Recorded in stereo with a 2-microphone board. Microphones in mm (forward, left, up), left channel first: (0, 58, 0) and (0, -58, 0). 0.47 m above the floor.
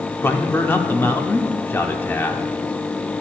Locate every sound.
0.2 s a man speaking: 20° left (ahead or behind), 0.7 m